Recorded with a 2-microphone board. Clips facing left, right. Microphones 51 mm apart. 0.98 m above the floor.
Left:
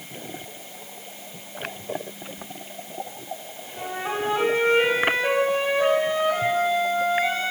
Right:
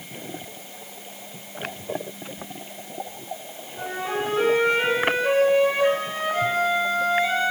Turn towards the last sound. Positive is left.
turn(degrees=65)  # may be behind; listen again after turning